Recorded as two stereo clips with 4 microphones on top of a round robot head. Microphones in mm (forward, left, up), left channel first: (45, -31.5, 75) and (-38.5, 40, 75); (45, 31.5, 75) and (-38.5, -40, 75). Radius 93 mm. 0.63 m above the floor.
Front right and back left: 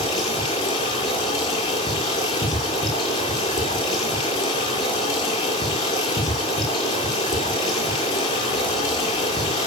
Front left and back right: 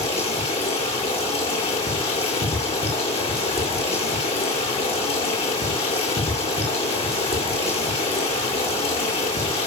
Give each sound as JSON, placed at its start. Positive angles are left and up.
{"t": 0.0, "sound": "running water", "azimuth_deg": 10, "distance_m": 9.0}